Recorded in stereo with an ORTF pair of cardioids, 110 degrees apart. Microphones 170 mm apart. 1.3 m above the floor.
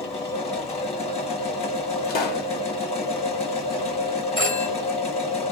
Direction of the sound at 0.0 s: 35° left.